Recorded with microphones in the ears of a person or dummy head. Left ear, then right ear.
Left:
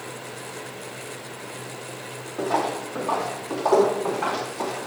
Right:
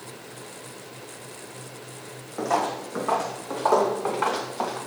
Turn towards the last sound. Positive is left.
turn(degrees=-65)  # may be behind; listen again after turning